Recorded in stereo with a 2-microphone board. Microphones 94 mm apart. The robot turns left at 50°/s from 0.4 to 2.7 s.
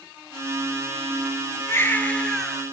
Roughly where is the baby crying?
Ahead left.